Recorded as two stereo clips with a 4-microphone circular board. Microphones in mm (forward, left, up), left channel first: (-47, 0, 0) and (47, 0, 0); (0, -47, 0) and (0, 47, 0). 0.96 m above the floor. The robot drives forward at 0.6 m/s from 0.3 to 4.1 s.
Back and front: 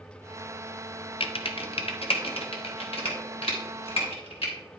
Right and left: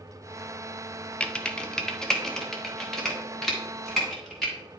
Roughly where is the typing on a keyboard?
Behind.